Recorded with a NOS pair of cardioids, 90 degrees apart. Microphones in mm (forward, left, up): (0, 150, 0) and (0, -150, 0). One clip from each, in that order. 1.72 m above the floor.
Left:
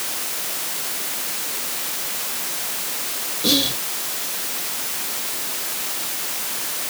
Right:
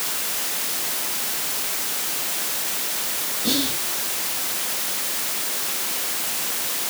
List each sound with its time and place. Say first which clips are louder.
3.4 s whispering: left 5 dB; 60° left, 1.5 m